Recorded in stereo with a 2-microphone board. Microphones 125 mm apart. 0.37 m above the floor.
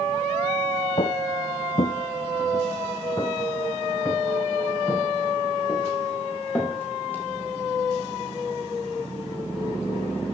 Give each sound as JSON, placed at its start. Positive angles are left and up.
{"t": 1.0, "sound": "footsteps", "side_deg": 45, "distance_m": 1.0}